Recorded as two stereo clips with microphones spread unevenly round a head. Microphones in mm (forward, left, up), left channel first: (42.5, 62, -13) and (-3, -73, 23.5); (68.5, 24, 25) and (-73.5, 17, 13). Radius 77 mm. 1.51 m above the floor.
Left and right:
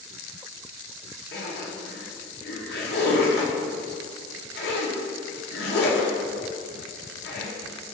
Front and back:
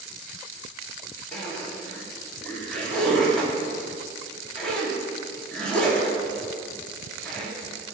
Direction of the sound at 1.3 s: 85° left.